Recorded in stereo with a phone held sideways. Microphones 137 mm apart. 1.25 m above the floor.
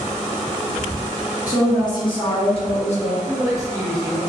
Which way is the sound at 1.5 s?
25° left (ahead or behind).